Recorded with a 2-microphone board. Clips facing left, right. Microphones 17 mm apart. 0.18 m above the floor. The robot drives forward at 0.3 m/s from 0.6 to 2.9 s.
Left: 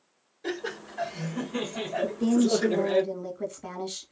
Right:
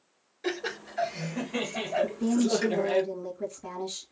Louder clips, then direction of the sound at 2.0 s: Left 4 dB; 25° left (ahead or behind).